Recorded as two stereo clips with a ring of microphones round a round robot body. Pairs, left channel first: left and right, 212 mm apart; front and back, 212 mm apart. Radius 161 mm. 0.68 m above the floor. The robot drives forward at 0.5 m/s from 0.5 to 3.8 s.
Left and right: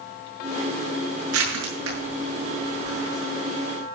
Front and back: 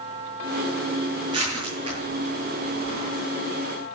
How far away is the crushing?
About 8 m.